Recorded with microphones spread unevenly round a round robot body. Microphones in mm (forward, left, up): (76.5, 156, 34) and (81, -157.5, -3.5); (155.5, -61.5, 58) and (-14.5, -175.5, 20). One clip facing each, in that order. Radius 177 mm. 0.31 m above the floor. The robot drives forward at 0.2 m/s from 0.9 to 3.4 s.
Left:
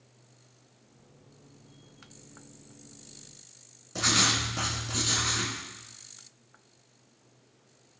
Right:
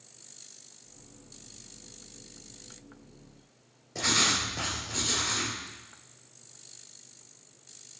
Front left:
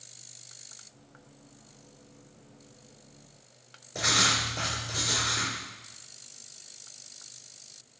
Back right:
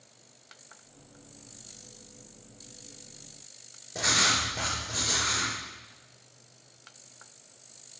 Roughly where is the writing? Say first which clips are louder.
Left 1 dB, even; behind left.